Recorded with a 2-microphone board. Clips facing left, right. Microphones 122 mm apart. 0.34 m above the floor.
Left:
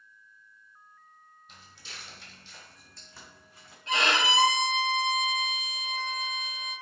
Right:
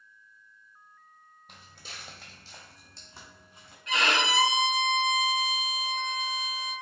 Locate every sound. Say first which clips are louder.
1.5 s footsteps: right 2 dB; 60° right (ahead or behind), 0.7 m; by 3.8 s 20° right (ahead or behind), 1.5 m
3.9 s a violin: even; 30° left (ahead or behind), 0.7 m